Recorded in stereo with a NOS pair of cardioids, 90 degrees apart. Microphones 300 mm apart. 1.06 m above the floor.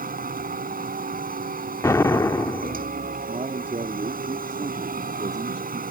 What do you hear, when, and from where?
0.0 s a machine running: 30° right
1.8 s an explosion: 10° left
3.3 s a man speaking: 20° right